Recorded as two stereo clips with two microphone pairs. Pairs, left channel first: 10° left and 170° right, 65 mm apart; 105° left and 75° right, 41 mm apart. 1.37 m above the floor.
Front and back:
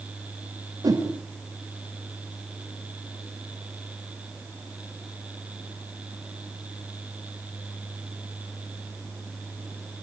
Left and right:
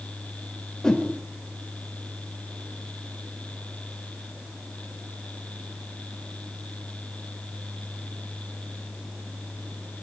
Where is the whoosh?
Straight behind, 4.5 m.